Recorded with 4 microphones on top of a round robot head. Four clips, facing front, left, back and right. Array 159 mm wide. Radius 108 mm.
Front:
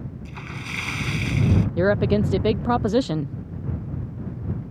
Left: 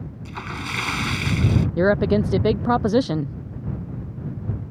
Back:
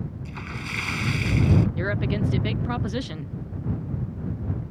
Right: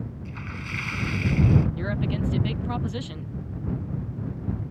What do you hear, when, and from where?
0.2 s a splash: 90° left
1.8 s a woman speaking: 55° left